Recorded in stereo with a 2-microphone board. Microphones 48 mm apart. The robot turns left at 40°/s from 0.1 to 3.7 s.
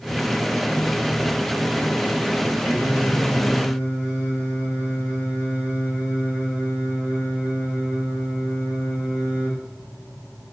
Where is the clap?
I don't hear a clap.